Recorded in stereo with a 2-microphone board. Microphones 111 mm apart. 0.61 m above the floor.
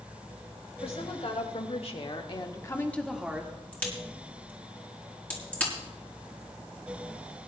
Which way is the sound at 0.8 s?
75° left (ahead or behind).